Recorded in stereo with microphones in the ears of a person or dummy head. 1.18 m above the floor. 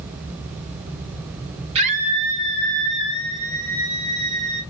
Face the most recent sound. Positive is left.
turn(degrees=-75)  # may be behind; listen again after turning